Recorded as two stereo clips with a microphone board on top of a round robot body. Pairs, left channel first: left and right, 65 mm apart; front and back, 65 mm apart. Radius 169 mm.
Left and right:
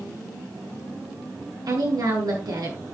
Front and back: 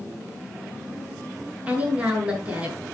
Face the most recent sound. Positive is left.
turn(degrees=-110)